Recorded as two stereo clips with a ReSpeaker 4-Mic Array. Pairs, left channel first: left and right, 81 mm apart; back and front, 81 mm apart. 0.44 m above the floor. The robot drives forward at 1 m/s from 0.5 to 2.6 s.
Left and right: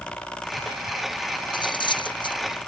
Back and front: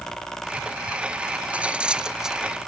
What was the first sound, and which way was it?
Cutlery clinking, 75° left.